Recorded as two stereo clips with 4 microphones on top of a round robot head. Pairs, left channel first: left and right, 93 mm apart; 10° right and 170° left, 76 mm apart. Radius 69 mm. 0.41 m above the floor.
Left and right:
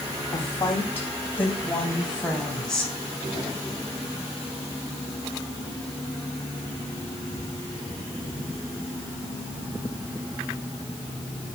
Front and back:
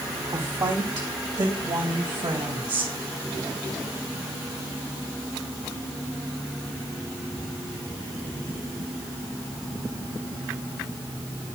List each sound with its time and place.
0.3 s a woman speaking: 145° left, 2.5 m; by 2.9 s 175° left, 3 m